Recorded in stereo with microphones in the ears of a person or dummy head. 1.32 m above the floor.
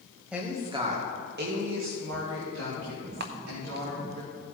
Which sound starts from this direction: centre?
A woman speaking, at 0.3 s.